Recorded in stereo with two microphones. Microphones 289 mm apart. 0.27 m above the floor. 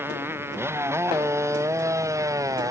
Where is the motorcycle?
10° right (ahead or behind).